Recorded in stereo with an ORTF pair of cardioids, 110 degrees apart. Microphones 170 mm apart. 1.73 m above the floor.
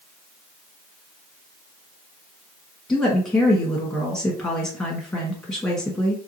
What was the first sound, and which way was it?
A woman speaking, 15° left.